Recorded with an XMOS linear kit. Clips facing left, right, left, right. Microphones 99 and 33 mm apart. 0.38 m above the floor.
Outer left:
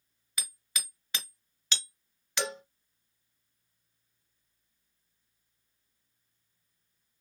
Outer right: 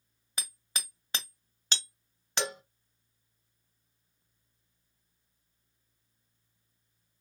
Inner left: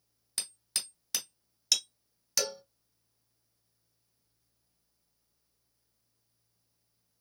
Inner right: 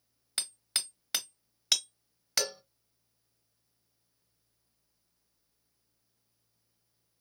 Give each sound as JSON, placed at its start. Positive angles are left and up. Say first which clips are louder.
{"t": 0.4, "sound": "hammering", "louder": "outer right 1 dB, inner right 3 dB", "side_deg": -35, "distance_m": 1.0}
{"t": 2.4, "sound": "a cowbell", "louder": "outer left 1 dB, even", "side_deg": -15, "distance_m": 0.8}